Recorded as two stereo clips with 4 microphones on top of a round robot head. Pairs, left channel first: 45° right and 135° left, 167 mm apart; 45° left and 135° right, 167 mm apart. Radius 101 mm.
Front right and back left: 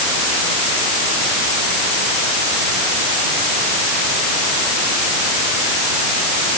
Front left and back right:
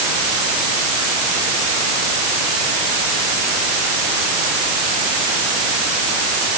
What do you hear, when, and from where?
Only background noise.